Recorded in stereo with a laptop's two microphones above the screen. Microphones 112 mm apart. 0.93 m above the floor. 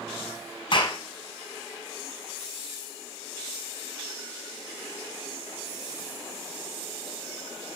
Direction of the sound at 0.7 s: 45° left (ahead or behind).